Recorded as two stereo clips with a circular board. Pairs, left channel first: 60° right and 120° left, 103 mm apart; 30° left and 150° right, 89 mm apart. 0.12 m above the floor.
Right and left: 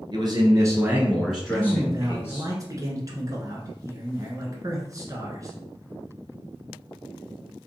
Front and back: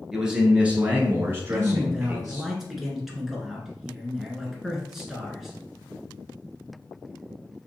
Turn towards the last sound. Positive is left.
turn(degrees=125)